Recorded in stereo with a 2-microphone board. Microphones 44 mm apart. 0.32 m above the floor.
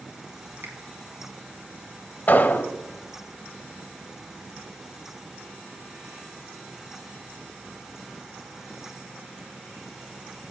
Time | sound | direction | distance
0.6 | a finger snap | 65° right (ahead or behind) | 3 m
2.3 | an explosion | 40° left (ahead or behind) | 0.9 m